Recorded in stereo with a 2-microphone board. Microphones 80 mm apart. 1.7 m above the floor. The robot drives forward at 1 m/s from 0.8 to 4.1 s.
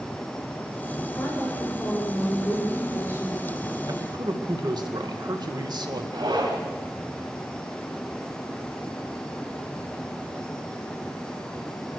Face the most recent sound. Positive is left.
turn(degrees=-75)  # may be behind; listen again after turning